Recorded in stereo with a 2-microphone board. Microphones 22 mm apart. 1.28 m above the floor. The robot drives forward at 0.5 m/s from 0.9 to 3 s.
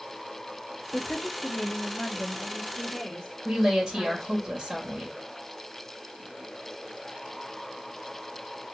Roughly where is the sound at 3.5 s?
Right.